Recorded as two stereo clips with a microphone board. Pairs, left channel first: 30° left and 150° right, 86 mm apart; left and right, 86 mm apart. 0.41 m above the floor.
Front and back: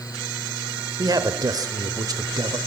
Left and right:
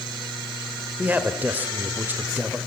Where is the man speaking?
150° right, 1.5 m.